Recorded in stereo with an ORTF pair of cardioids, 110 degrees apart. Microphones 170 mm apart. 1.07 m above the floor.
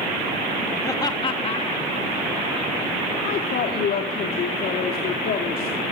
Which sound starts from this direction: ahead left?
A woman speaking, at 3.2 s.